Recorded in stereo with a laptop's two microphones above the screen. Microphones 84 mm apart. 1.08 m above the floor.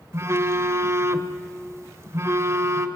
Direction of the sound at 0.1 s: 35° right (ahead or behind).